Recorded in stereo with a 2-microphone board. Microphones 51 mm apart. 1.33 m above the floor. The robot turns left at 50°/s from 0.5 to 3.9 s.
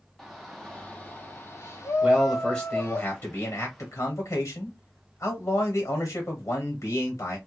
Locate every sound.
0.2 s a shout: 175° left, 0.7 m; by 3.0 s 50° left, 0.7 m
2.0 s a man speaking: 175° right, 1.4 m; by 7.4 s 95° left, 1.4 m